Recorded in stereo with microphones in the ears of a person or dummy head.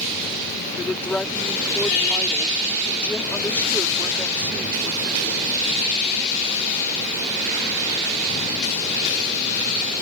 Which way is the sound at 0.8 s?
5° left (ahead or behind).